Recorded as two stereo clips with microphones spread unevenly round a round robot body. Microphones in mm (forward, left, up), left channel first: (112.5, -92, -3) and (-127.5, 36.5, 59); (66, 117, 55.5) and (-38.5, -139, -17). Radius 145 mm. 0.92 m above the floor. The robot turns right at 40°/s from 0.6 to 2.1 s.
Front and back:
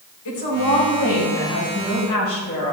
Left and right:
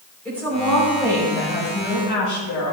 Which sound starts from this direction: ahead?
A woman speaking, at 0.2 s.